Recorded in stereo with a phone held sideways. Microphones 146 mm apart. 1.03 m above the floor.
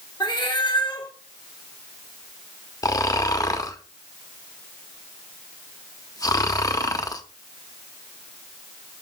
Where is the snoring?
25° left (ahead or behind), 0.7 m.